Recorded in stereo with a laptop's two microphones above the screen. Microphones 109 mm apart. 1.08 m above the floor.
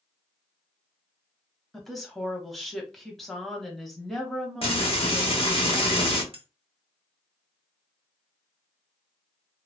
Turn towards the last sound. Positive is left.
turn(degrees=-60)  # may be behind; listen again after turning